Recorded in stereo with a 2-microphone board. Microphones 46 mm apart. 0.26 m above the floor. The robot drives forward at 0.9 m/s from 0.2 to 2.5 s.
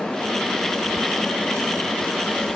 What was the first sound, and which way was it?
Only background noise.